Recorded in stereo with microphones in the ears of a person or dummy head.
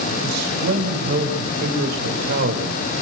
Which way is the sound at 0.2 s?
50° right (ahead or behind).